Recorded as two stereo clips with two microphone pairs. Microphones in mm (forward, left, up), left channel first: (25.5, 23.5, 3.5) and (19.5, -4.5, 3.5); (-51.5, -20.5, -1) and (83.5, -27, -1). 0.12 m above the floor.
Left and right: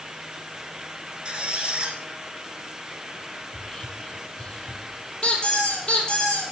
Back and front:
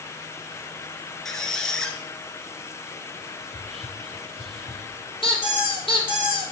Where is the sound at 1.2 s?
100° right, 1.0 m.